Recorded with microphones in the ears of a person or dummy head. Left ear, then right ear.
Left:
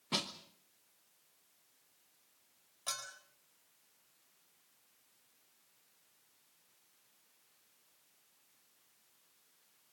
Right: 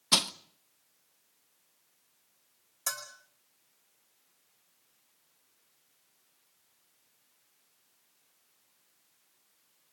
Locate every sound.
0.1 s crushing: 50° right (ahead or behind), 0.8 m
2.9 s a bell: 60° right (ahead or behind), 4 m